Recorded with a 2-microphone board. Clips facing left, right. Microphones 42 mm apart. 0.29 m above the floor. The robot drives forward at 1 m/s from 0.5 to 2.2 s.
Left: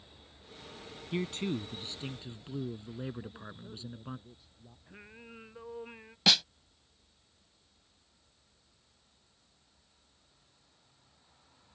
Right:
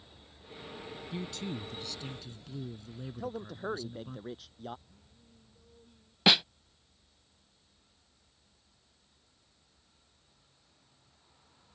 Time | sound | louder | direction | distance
1.1 | a man speaking | left 6 dB | 45° left (ahead or behind) | ?
3.2 | a man speaking | right 7 dB | 75° right (ahead or behind) | ?
4.9 | singing | left 12 dB | 90° left | ?
6.3 | a snare drum | right 3 dB | 20° right (ahead or behind) | ?